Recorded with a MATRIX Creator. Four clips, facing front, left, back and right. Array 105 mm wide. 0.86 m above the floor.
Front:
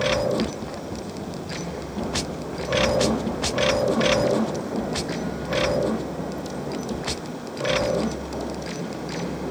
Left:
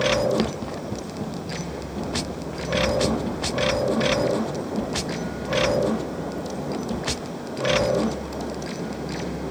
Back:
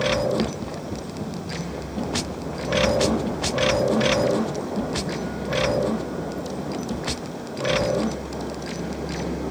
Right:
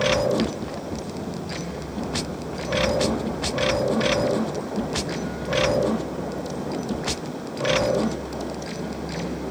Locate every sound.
Only background noise.